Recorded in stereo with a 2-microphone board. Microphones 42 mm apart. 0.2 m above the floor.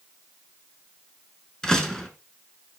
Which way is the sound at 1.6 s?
10° left (ahead or behind).